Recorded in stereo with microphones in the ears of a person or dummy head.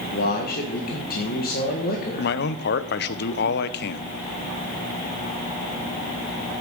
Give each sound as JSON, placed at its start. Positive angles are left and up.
{"t": 0.1, "sound": "a man speaking", "side_deg": 50, "distance_m": 1.6}
{"t": 2.2, "sound": "a man speaking", "side_deg": 60, "distance_m": 0.7}